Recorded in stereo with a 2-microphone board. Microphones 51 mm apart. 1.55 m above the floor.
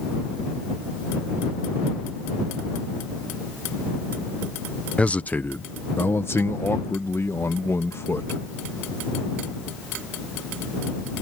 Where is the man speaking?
25° left (ahead or behind); by 8.4 s 80° left.